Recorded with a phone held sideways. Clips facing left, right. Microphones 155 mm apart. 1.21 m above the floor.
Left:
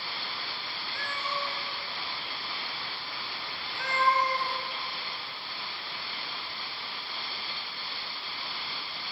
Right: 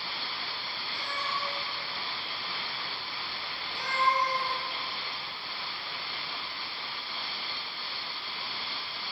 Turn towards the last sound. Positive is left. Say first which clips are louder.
# left 1 dB
turn(degrees=-15)  # may be behind; listen again after turning